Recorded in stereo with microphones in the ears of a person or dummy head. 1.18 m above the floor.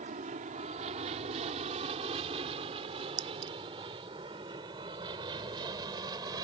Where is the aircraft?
35° right (ahead or behind); by 6.4 s 20° right (ahead or behind).